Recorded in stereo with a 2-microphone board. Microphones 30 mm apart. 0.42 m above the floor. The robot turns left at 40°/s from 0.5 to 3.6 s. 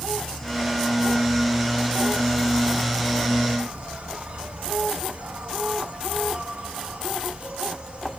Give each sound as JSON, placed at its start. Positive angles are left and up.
{"t": 0.0, "sound": "an insect", "azimuth_deg": 5, "distance_m": 1.1}